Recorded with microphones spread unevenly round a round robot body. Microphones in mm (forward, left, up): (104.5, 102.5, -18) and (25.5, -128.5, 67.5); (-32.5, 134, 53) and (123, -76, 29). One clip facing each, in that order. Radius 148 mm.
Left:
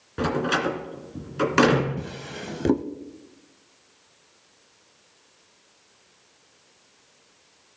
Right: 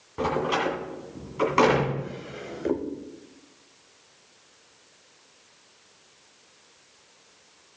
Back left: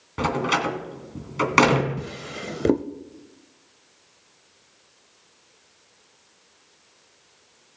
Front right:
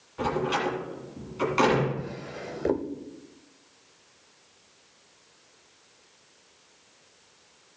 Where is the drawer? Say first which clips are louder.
Even, back left 2 dB; 85° left, 0.7 m.